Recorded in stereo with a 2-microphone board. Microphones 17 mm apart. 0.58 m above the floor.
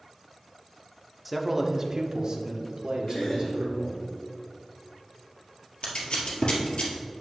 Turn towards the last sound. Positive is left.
turn(degrees=80)